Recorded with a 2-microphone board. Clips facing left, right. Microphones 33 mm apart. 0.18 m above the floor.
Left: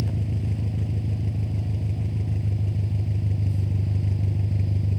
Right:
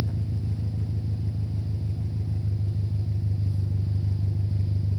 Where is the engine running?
75° left (ahead or behind), 1.4 m.